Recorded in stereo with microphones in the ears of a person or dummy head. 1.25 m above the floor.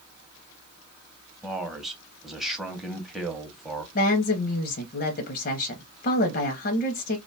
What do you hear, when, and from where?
1.4 s a man speaking: centre (ahead or behind), 0.6 m
4.0 s a woman speaking: 45° left (ahead or behind), 0.6 m